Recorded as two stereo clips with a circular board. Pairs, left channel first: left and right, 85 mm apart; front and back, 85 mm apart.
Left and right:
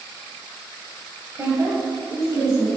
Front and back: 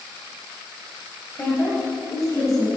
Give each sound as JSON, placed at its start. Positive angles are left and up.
{"t": 1.4, "sound": "a woman speaking", "azimuth_deg": -55, "distance_m": 1.6}